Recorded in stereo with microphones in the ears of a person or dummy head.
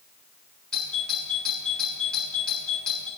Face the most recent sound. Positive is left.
turn(degrees=5)  # may be behind; listen again after turning